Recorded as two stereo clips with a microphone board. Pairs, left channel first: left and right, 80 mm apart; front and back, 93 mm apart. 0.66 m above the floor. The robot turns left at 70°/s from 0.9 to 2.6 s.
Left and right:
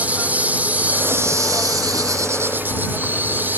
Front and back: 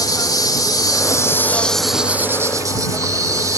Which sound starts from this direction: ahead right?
An insect, at 0.0 s.